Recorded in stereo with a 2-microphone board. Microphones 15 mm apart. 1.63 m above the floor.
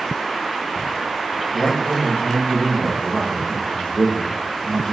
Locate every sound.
1.5 s a man speaking: 65° left (ahead or behind), 3 m